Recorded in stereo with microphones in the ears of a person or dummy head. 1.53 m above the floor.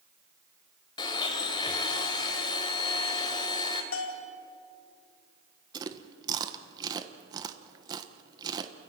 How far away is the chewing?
About 1.2 m.